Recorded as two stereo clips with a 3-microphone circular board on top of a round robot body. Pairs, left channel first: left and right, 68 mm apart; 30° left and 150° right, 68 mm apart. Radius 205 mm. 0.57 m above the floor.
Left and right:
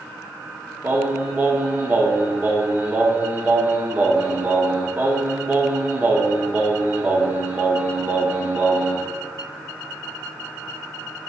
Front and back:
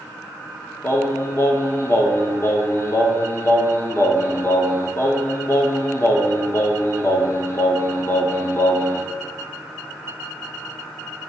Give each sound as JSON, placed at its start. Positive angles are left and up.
{"t": 0.8, "sound": "singing", "azimuth_deg": -25, "distance_m": 1.0}